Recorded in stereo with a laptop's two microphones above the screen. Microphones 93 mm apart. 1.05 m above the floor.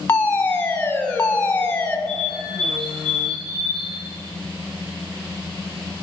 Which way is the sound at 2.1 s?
50° right (ahead or behind).